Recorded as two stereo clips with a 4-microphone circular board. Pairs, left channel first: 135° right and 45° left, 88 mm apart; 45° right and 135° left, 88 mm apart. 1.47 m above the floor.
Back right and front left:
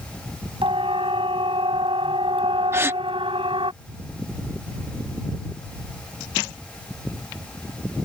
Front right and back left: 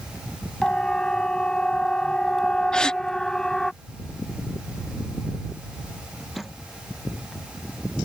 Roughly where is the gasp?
Ahead left.